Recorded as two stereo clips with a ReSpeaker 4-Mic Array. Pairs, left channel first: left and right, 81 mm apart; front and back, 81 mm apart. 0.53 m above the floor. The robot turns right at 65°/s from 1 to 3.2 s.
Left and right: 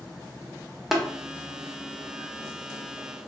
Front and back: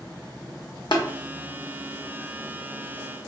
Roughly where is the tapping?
Ahead.